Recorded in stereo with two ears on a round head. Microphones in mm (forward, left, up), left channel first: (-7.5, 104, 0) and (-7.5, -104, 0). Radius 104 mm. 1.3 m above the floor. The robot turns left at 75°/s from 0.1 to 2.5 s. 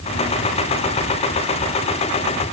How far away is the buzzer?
No buzzer in this recording.